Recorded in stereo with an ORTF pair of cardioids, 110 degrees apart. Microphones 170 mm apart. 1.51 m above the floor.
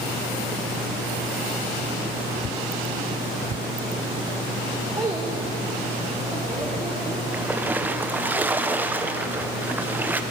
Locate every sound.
5.0 s a child speaking: 20° right, 1.2 m; by 7.2 s 10° right, 3 m
7.3 s a splash: 10° right, 0.8 m